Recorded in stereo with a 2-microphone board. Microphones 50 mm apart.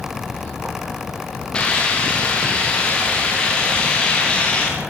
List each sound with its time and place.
1.5 s a hiss: 20° left (ahead or behind), 9 m